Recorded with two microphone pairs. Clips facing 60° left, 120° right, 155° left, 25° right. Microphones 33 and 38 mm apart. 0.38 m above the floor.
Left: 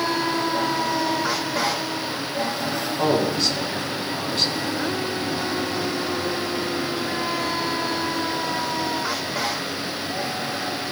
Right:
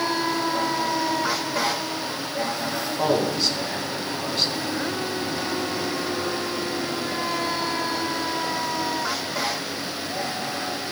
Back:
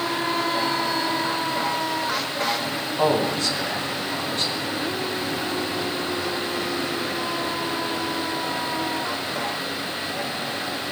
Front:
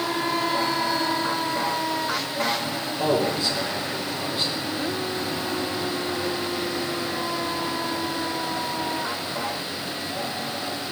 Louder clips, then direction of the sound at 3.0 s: Left 1 dB, back 2 dB; 155° left.